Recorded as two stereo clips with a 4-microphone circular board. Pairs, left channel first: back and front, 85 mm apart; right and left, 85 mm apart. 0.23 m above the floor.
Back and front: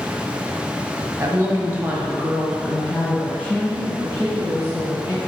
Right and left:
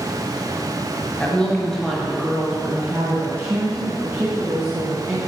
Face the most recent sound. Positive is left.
turn(degrees=135)